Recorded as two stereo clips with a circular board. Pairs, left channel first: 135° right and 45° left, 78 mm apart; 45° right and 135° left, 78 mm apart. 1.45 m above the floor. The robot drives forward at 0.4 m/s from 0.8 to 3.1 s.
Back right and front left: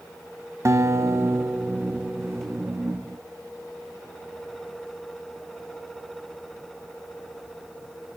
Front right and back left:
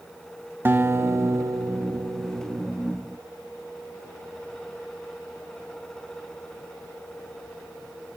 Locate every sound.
0.7 s a guitar: 80° left, 1.0 m; by 2.7 s 130° left, 1.2 m